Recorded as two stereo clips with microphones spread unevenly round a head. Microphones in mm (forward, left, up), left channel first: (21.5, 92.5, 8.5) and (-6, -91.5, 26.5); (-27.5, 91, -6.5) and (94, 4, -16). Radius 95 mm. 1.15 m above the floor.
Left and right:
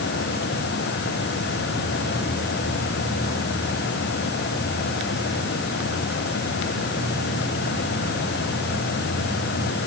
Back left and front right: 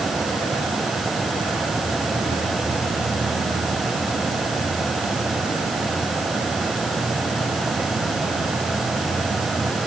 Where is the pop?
No pop in this recording.